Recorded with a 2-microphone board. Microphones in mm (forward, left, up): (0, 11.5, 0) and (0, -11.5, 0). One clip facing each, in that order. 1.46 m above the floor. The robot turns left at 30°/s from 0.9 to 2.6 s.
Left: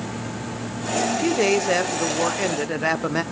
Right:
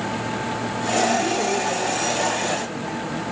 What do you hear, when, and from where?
1.1 s a man speaking: 140° left, 0.9 m; by 3.2 s 95° left, 0.9 m